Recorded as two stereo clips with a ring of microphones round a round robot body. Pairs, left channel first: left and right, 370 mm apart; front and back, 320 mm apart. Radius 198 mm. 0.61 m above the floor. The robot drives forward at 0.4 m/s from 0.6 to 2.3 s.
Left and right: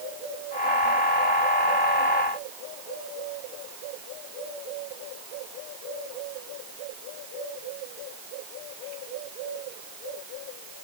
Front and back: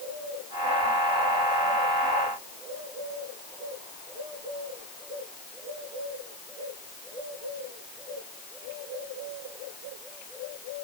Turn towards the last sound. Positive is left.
No sound to turn to.